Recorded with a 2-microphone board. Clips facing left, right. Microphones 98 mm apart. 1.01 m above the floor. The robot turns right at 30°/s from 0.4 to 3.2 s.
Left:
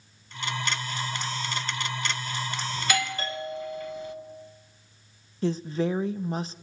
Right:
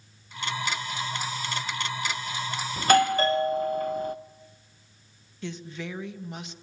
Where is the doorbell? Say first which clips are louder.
Right 11 dB; 40° right (ahead or behind), 0.9 m; by 4.2 s 45° right (ahead or behind), 0.9 m.